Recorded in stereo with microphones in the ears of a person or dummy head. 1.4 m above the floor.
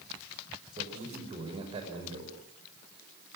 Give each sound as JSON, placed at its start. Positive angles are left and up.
{"t": 0.8, "sound": "a man speaking", "side_deg": -30, "distance_m": 6.0}